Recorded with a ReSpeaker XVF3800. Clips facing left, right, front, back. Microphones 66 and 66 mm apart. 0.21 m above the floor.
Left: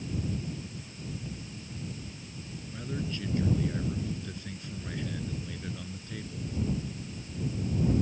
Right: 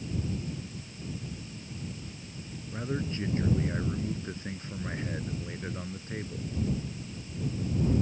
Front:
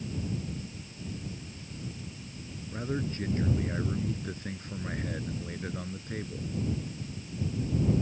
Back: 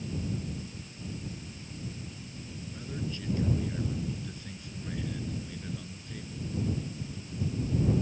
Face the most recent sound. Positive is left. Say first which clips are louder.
# right 3 dB, front 6 dB
turn(degrees=-35)